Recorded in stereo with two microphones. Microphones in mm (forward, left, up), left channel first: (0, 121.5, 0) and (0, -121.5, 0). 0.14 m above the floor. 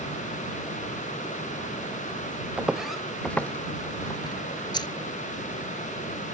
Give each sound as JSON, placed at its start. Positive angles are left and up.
{"t": 2.6, "sound": "footsteps", "side_deg": -5}
{"t": 4.7, "sound": "keys jangling", "side_deg": 20}